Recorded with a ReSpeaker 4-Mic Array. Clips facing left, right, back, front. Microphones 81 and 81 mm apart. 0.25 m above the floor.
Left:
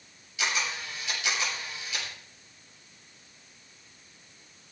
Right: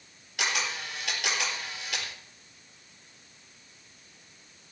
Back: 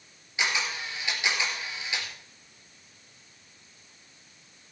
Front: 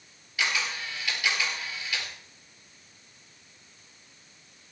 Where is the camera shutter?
110° right, 4.5 m.